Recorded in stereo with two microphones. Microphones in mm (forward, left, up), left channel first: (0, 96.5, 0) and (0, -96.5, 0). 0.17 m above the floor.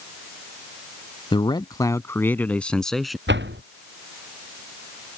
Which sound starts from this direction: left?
A man speaking, at 1.3 s.